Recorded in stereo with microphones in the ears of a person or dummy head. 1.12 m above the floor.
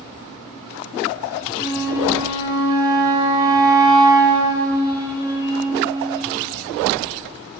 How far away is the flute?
About 1.4 m.